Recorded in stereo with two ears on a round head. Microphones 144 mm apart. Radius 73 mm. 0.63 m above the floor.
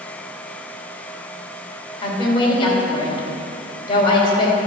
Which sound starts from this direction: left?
A woman speaking, at 2.0 s.